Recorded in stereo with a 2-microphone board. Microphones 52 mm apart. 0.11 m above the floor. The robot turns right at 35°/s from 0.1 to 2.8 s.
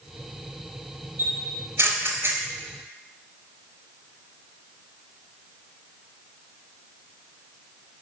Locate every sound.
1.2 s a camera shutter: 45° right (ahead or behind), 0.7 m